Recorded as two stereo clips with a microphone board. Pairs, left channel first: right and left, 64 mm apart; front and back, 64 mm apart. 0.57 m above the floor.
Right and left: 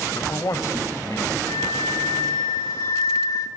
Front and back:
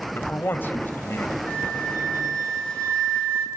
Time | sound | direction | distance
0.1 | a man speaking | 60° right | 2 m
1.5 | a flute | 75° right | 5 m